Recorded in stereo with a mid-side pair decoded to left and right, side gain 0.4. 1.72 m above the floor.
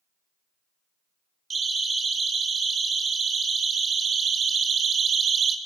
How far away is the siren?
About 7 m.